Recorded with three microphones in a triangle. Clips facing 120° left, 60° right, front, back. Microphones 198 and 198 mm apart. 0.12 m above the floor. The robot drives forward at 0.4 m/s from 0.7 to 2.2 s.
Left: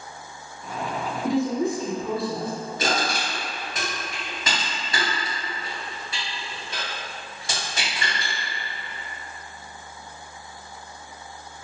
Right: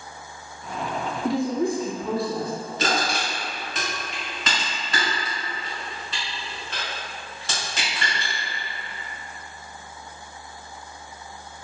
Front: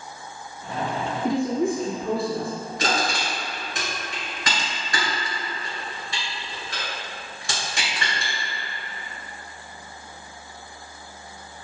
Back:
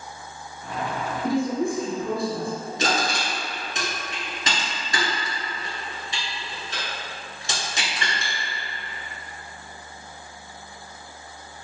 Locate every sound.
1.2 s a woman speaking: 95° left, 1.2 m; by 2.5 s 135° left, 1.3 m
2.8 s crushing: 175° left, 1.4 m